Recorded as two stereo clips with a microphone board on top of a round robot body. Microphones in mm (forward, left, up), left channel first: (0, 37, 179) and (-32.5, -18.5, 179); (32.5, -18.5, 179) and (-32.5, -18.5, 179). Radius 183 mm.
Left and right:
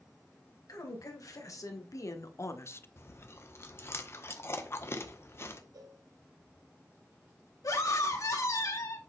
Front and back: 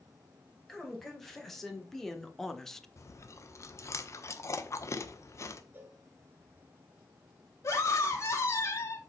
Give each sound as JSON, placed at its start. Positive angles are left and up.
{"t": 0.7, "sound": "a woman speaking", "azimuth_deg": 85, "distance_m": 3.0}
{"t": 3.0, "sound": "chewing", "azimuth_deg": 25, "distance_m": 1.2}
{"t": 5.7, "sound": "a cowbell", "azimuth_deg": -120, "distance_m": 2.0}
{"t": 7.6, "sound": "a scream", "azimuth_deg": 40, "distance_m": 2.5}